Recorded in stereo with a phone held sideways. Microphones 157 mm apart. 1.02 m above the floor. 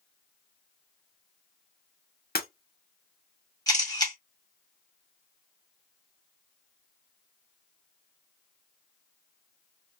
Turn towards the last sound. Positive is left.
turn(degrees=25)  # may be behind; listen again after turning